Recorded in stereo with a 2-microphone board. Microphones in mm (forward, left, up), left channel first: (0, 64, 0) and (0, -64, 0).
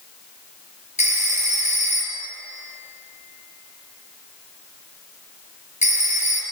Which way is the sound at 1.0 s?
70° left (ahead or behind).